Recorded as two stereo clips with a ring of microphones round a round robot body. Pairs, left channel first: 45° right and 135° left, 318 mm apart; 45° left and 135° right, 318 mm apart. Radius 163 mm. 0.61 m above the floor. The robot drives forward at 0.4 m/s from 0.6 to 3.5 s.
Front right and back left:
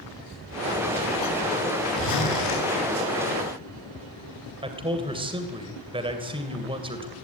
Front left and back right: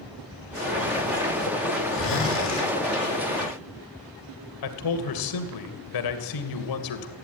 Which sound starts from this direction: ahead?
A zipper, at 1.9 s.